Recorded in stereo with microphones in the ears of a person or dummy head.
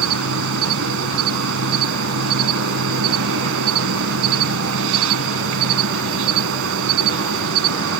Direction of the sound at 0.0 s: 75° right (ahead or behind).